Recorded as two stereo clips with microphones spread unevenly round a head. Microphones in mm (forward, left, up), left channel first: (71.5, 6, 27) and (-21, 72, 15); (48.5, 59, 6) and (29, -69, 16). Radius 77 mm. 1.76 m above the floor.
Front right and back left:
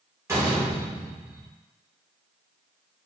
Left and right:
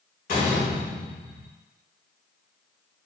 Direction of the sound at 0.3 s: 80° left.